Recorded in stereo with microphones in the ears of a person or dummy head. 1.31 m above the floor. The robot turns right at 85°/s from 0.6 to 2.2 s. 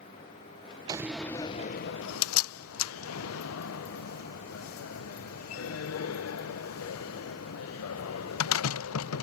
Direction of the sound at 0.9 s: 25° right (ahead or behind).